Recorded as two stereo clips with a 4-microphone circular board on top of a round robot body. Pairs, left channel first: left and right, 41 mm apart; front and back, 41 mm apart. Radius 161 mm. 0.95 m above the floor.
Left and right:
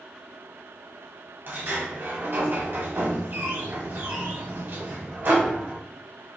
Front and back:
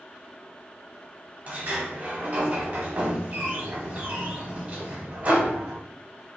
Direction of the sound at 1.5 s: 125° right.